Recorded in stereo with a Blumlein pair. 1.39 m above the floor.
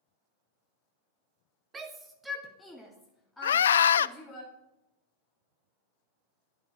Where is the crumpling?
No crumpling in this recording.